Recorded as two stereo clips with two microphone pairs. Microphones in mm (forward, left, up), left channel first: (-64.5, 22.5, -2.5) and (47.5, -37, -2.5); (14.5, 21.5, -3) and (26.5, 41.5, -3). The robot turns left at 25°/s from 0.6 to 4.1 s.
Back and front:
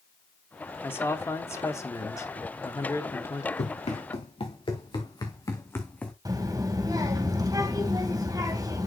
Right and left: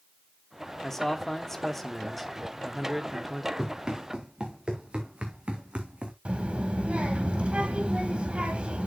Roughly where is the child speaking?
Ahead left.